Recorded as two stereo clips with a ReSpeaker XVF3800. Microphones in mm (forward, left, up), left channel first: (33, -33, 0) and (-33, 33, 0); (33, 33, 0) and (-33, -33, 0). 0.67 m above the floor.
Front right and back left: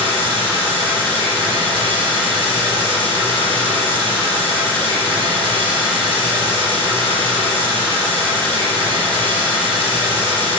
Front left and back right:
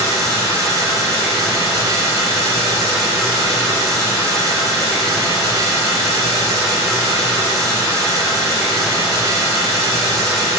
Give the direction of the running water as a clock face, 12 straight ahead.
6 o'clock.